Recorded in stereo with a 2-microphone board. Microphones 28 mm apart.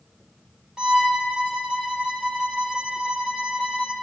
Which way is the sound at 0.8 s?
30° right (ahead or behind).